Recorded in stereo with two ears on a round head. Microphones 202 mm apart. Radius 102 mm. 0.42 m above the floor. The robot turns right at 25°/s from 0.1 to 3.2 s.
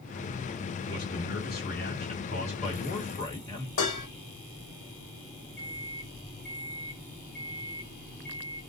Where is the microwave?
45° left (ahead or behind), 0.7 m.